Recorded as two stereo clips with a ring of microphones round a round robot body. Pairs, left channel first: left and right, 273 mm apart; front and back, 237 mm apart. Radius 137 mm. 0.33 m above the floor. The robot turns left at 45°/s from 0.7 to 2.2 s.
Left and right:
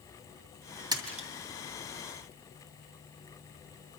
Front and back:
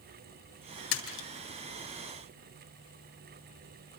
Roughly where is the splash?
Ahead.